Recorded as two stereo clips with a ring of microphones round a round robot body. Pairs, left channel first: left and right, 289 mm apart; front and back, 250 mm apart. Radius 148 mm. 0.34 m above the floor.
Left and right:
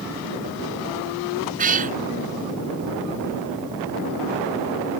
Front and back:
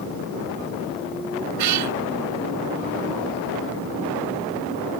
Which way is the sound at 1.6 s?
155° right.